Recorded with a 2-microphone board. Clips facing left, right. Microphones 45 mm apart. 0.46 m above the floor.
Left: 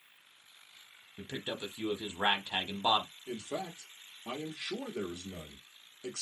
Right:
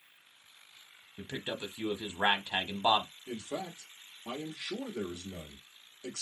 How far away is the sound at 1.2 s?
About 1.0 m.